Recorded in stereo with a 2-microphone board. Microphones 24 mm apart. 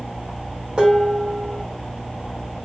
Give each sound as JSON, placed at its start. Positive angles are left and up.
{"t": 0.8, "sound": "dishes clattering", "side_deg": -50, "distance_m": 1.7}